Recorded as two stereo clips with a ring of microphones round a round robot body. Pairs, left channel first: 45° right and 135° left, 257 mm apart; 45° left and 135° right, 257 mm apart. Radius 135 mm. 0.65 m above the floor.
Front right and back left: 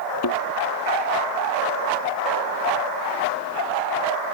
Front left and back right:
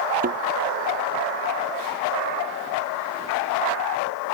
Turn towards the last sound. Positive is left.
turn(degrees=-75)